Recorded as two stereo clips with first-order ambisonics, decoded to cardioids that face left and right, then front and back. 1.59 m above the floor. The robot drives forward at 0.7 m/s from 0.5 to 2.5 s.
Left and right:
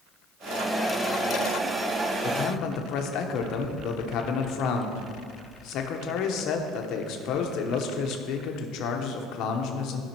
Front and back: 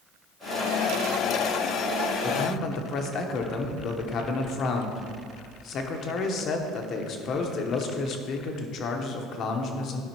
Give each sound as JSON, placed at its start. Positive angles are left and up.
{"t": 2.2, "sound": "a man speaking", "azimuth_deg": 45, "distance_m": 1.0}